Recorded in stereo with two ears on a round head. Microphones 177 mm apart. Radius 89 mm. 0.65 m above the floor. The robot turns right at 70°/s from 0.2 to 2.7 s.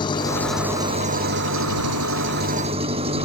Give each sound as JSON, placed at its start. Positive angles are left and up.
{"t": 0.0, "sound": "an engine running", "azimuth_deg": 155}